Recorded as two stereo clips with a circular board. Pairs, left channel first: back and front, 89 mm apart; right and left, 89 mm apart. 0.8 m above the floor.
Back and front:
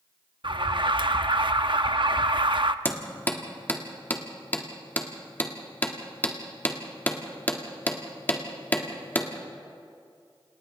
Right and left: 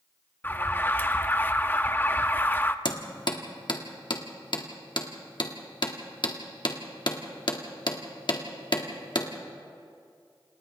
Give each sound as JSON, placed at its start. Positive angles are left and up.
{"t": 0.4, "sound": "an alarm", "azimuth_deg": -25, "distance_m": 0.6}
{"t": 2.9, "sound": "hammering", "azimuth_deg": -110, "distance_m": 1.7}